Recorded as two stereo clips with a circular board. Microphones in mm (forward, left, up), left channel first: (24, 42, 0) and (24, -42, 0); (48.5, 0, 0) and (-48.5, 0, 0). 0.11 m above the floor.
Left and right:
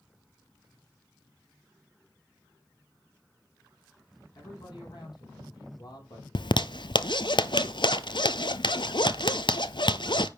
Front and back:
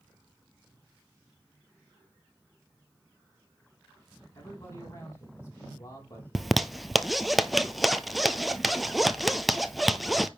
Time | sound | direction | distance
4.3 | a man speaking | 60° left | 5.5 m
6.3 | a zipper | 90° left | 0.6 m